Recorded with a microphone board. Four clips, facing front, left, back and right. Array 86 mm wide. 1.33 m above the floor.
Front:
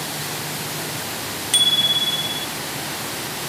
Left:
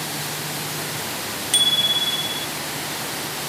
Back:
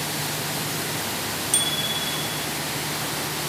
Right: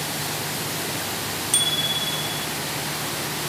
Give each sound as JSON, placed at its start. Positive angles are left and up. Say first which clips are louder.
{"t": 1.5, "sound": "a bicycle bell", "louder": "left 1 dB, front 2 dB", "azimuth_deg": 30}